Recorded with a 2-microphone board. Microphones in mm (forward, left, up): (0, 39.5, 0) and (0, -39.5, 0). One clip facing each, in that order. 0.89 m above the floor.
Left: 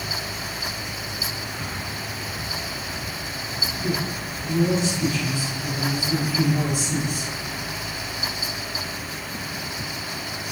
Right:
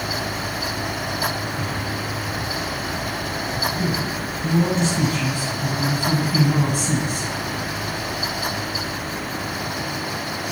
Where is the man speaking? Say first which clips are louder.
Right 3 dB; 55° right (ahead or behind), 8.5 m.